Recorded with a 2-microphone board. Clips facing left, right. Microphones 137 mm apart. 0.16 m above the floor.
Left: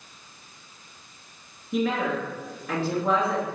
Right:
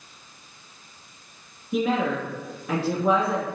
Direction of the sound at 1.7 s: 15° right (ahead or behind).